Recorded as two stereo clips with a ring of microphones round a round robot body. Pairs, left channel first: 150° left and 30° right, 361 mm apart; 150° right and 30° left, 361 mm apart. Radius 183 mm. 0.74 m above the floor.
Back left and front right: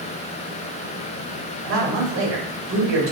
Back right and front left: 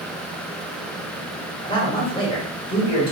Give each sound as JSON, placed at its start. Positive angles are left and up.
{"t": 1.6, "sound": "a man speaking", "azimuth_deg": -75, "distance_m": 1.2}